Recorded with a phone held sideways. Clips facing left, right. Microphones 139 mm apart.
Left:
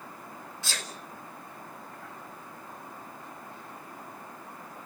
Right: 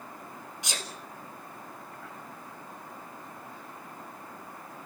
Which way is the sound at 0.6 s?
20° right (ahead or behind).